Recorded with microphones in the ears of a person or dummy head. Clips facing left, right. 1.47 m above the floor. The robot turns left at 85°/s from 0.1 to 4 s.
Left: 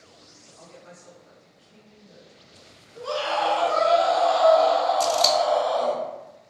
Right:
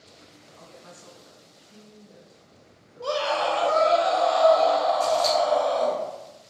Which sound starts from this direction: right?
A woman speaking, at 0.6 s.